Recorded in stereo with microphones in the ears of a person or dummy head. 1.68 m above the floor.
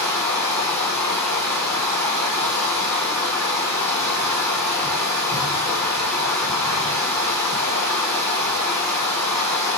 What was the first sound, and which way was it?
Running water, 15° left (ahead or behind).